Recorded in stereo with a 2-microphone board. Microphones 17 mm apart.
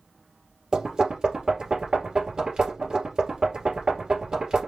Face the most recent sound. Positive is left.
turn(degrees=-60)  # may be behind; listen again after turning